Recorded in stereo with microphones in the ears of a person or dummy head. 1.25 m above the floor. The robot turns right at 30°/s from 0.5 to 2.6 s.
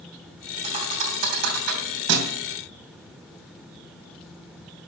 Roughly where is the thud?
Right.